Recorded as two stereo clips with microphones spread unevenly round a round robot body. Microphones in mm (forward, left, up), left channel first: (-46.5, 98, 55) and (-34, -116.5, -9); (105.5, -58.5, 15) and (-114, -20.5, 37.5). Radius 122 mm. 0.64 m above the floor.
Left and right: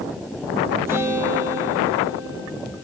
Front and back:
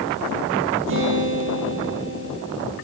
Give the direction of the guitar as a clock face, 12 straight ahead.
6 o'clock.